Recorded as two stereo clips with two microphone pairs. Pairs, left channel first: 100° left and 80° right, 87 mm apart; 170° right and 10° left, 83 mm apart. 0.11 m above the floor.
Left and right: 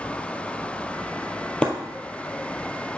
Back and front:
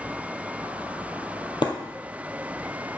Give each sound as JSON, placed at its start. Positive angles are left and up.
{"t": 1.6, "sound": "breaking glass", "azimuth_deg": 175, "distance_m": 1.5}